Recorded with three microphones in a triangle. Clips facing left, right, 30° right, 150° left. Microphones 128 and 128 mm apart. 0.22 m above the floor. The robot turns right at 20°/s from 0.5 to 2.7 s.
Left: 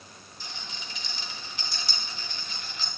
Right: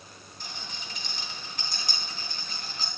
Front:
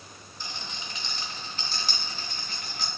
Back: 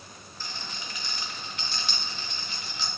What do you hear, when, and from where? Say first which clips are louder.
0.4 s a rattle: even, even; 95° right, 1.9 m; by 2.9 s 50° right, 1.9 m